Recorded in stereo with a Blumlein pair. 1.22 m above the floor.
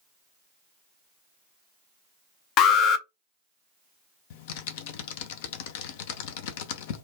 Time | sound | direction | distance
2.6 | an alarm | 35° left | 0.5 m
4.3 | typing on a keyboard | 50° left | 0.5 m